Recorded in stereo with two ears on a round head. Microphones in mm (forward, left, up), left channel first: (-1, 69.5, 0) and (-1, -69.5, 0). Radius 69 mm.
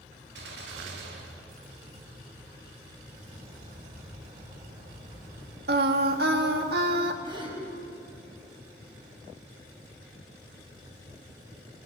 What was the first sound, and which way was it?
A gunshot, 80° right.